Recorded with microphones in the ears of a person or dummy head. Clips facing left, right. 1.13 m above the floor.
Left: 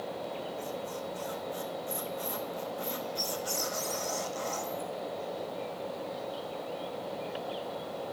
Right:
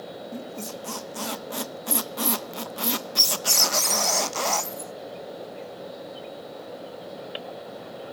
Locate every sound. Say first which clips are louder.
0.3 s a squeak: right 2 dB; 85° right, 0.6 m